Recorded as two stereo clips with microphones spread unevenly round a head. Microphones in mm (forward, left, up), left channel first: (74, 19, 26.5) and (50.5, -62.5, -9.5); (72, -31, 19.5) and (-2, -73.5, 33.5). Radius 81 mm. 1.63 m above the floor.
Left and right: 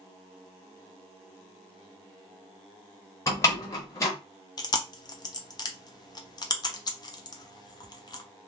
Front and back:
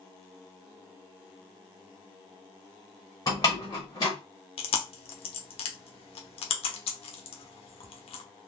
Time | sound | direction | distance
3.3 | a door slam | 100° left | 0.9 m
4.6 | chewing | 30° left | 0.9 m